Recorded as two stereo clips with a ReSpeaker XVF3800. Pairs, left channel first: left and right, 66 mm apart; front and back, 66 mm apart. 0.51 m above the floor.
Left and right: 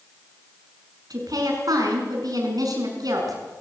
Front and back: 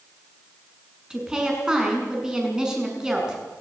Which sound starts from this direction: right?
A woman speaking, at 1.1 s.